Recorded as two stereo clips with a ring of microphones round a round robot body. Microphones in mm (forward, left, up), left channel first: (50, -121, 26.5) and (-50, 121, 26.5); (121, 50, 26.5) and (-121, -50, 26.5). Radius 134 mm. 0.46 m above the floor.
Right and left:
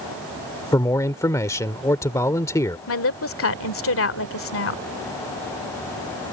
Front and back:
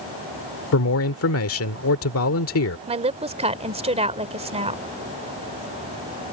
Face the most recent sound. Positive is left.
turn(degrees=-95)